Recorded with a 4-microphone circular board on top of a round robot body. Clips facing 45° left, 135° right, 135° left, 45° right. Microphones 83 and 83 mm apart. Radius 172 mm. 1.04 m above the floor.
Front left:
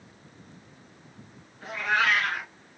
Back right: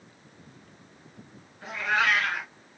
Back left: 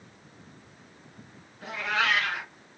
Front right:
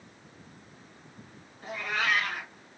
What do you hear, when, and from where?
1.6 s a cat meowing: 140° left, 1.6 m